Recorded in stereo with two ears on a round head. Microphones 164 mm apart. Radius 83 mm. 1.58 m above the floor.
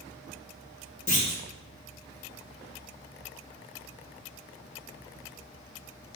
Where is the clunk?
40° left (ahead or behind), 3 m.